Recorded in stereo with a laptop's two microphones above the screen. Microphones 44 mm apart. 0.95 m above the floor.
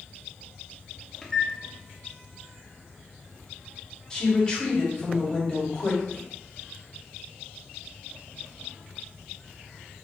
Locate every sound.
1.2 s a microwave: 10° left (ahead or behind), 0.5 m
4.1 s a woman speaking: 15° left (ahead or behind), 1.5 m